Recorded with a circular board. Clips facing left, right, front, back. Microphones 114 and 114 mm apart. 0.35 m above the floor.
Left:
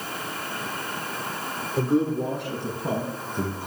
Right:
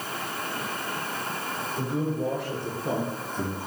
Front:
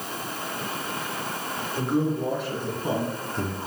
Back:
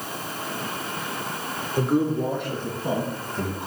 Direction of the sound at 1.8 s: 100° left.